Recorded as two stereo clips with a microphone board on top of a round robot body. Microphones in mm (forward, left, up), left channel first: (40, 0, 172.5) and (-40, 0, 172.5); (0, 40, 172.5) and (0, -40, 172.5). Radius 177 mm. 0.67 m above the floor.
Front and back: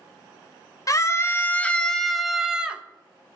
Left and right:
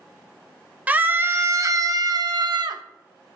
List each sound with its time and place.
0.9 s a scream: 25° right, 1.0 m; by 2.8 s 105° right, 1.3 m